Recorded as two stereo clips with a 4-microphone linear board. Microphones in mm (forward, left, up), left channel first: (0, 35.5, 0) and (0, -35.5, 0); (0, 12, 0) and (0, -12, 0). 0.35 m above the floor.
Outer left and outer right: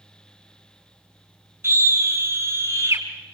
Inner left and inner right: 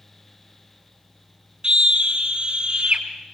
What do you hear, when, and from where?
1.6 s a scream: 35° right (ahead or behind), 4 m